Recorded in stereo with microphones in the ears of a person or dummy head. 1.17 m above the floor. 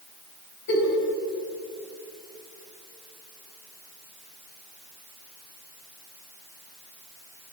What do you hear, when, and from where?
0.7 s a giggle: 55° left (ahead or behind), 4 m